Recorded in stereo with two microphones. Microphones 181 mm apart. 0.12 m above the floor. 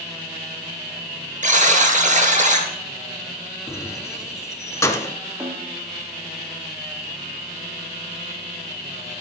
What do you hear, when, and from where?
1.4 s a buzzer: 45° right (ahead or behind), 1.9 m
3.7 s keys jangling: 15° left (ahead or behind), 0.9 m
5.4 s a snare drum: 15° right (ahead or behind), 3 m